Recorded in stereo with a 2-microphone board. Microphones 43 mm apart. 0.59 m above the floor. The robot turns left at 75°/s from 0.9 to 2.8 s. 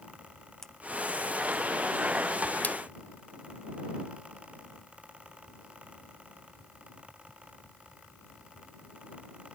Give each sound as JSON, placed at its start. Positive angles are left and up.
{"t": 0.6, "sound": "a splash", "side_deg": 10}
{"t": 2.6, "sound": "a splash", "side_deg": 40}